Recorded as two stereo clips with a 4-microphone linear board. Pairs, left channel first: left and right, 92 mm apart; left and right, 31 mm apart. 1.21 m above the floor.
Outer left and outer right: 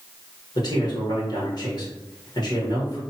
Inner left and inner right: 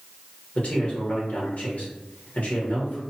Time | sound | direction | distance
0.6 | a man speaking | 50° left (ahead or behind) | 1.1 m